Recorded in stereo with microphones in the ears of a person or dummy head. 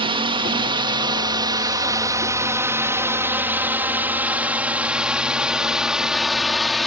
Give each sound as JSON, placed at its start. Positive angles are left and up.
{"t": 0.0, "sound": "a drone", "side_deg": -30}